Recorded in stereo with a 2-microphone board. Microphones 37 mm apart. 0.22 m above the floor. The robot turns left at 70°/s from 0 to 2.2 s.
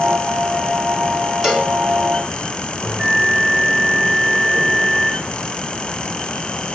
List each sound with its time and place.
1.4 s a cowbell: 5° right (ahead or behind), 2.5 m; by 1.7 s 20° right (ahead or behind), 2.5 m
2.8 s a bell: 75° right (ahead or behind), 6 m